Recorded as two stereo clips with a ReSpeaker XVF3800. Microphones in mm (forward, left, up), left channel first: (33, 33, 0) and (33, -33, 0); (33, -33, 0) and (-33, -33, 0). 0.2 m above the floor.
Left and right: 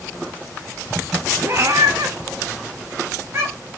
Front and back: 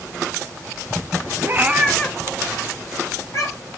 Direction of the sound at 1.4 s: 140° right.